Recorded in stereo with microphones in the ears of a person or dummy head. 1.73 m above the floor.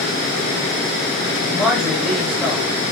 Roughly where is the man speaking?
Centre.